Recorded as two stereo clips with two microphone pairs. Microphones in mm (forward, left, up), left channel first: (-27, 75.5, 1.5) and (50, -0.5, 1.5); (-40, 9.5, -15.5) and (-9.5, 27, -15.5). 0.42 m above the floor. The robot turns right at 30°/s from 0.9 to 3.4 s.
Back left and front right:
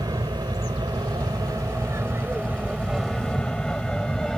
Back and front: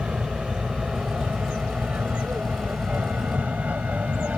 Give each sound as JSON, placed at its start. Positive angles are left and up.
{"t": 0.0, "sound": "an aircraft", "azimuth_deg": -15}